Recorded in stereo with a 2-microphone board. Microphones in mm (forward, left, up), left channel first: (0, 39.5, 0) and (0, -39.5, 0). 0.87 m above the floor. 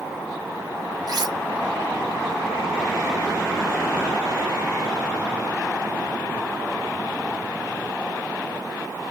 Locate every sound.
1.1 s cutlery clinking: 55° right (ahead or behind), 0.6 m